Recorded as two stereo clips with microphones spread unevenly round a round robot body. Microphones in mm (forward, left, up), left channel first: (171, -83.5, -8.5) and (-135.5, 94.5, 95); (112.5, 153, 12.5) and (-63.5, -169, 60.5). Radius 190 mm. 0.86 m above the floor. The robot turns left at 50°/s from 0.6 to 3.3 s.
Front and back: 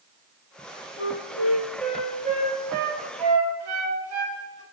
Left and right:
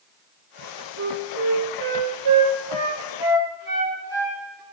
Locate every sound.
1.0 s a flute: 65° right, 2.5 m; by 4.6 s 175° left, 2.5 m